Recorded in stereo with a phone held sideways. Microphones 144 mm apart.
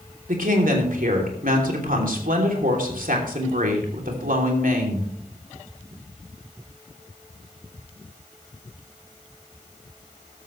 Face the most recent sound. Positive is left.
turn(degrees=-75)  # may be behind; listen again after turning